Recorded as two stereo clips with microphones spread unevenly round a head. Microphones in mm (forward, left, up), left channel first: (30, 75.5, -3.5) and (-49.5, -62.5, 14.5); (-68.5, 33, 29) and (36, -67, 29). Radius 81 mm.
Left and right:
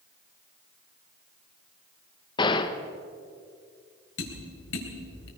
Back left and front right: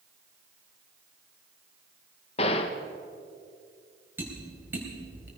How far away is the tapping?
About 4 m.